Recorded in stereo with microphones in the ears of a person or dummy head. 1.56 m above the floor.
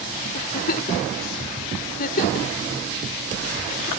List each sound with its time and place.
0.3 s a giggle: 60° left (ahead or behind)